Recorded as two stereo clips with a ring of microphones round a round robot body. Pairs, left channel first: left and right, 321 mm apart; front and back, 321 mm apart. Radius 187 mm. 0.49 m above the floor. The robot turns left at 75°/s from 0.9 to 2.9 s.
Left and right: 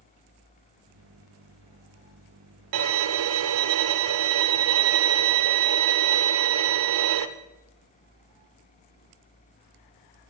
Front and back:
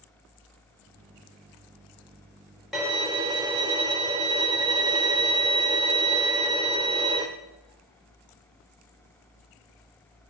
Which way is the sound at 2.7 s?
90° right.